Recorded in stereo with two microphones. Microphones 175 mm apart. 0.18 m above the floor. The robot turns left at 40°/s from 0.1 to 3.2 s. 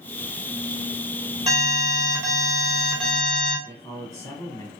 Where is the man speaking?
20° left (ahead or behind), 1.1 m.